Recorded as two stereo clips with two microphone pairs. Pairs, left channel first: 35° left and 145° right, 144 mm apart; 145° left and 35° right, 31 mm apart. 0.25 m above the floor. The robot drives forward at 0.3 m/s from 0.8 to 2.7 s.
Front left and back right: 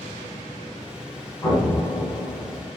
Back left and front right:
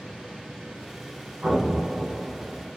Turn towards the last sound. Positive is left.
turn(degrees=-50)